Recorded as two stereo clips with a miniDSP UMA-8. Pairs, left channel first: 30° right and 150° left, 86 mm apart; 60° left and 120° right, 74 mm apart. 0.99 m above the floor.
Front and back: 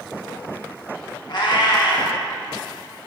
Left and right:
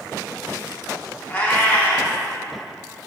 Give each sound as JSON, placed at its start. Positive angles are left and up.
{"t": 1.3, "sound": "a cat meowing", "azimuth_deg": -5, "distance_m": 1.0}